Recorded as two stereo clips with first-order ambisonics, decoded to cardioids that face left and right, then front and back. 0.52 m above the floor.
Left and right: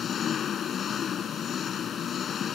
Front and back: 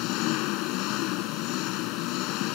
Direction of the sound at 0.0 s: 25° left.